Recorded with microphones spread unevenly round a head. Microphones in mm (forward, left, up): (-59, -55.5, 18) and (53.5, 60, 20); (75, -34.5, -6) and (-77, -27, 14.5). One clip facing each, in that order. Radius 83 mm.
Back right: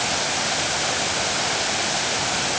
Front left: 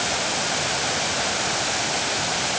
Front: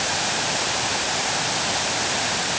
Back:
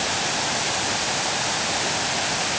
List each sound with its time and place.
Only background noise.